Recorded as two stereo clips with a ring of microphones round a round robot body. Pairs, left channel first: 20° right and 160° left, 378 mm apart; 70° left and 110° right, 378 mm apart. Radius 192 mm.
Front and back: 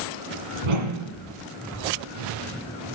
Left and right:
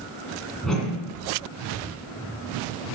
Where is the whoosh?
155° left, 2 m.